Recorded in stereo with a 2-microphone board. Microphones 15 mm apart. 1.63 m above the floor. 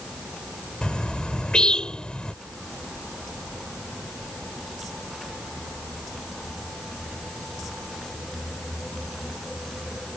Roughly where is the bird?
Left.